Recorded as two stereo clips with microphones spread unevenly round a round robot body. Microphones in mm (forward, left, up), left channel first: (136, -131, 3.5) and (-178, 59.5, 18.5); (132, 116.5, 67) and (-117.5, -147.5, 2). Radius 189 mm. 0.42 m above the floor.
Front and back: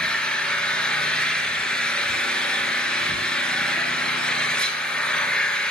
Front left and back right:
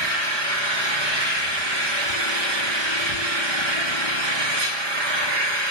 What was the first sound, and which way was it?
An engine running, 120° right.